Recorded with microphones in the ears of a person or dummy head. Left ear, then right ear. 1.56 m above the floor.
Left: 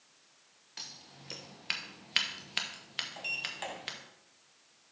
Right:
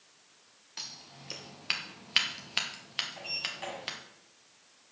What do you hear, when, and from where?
0.8 s scissors: centre (ahead or behind), 1.1 m
3.2 s a sliding door: 35° left (ahead or behind), 2.5 m